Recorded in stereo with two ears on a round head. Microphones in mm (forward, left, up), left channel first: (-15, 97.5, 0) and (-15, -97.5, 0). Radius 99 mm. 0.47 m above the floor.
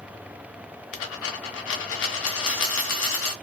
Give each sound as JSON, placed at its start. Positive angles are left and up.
{"t": 0.9, "sound": "a dropped coin", "side_deg": 65, "distance_m": 0.9}